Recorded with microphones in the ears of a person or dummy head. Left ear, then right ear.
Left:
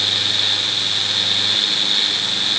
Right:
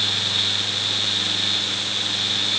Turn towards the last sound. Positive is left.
No sound to turn to.